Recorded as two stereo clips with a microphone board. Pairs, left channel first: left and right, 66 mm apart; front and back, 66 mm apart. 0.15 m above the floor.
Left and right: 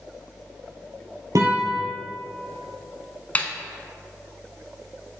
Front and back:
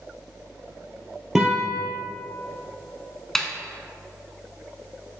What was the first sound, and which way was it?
A guitar, 95° right.